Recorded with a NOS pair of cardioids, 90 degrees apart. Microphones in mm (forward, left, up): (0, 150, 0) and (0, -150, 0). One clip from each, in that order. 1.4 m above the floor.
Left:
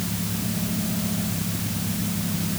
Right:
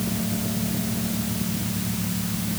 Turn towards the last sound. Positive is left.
No sound to turn to.